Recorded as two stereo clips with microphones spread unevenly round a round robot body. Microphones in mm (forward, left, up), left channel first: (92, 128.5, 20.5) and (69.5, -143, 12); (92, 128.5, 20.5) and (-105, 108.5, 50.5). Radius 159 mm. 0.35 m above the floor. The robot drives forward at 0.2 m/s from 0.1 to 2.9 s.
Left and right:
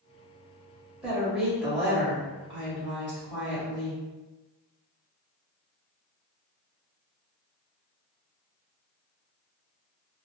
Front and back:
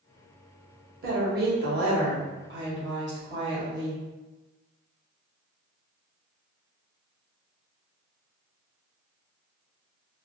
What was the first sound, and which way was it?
A woman speaking, straight behind.